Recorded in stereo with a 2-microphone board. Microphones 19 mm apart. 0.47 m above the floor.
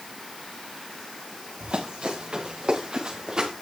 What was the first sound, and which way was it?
Running footsteps, 70° right (ahead or behind).